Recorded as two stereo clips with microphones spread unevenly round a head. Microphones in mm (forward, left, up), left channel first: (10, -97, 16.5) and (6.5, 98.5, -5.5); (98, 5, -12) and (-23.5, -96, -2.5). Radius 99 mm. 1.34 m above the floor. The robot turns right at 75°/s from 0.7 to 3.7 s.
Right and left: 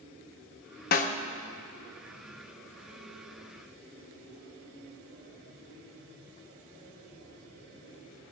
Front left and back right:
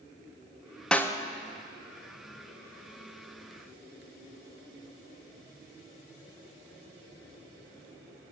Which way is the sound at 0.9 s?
45° right.